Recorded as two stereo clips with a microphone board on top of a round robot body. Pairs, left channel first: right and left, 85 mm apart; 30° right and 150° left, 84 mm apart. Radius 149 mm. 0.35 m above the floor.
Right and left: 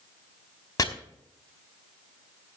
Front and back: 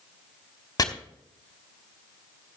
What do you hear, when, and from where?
0.8 s chopping: 55° right, 2 m